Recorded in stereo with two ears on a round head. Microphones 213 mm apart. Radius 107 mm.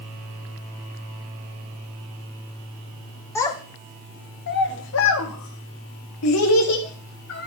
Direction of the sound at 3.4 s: 10° left (ahead or behind).